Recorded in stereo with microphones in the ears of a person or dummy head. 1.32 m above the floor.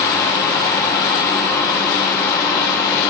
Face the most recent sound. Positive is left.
turn(degrees=20)  # may be behind; listen again after turning